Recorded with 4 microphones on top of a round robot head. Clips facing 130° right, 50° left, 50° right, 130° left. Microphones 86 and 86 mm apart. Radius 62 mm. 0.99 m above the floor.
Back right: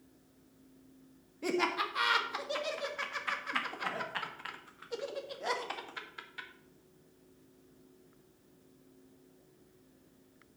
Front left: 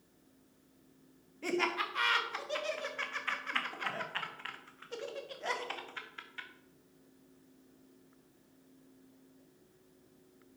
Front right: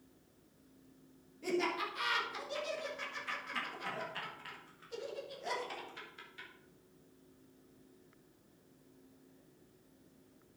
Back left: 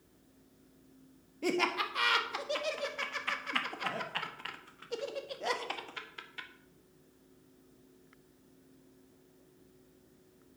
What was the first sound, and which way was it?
Laughter, 155° left.